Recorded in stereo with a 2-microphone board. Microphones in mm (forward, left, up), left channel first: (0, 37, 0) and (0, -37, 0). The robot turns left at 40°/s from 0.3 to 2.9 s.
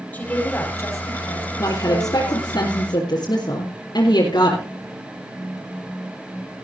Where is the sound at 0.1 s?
155° left, 6.5 m; by 2.6 s 65° left, 6.5 m.